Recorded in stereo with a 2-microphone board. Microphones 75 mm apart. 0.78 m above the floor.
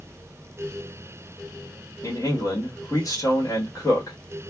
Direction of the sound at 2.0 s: 45° left (ahead or behind).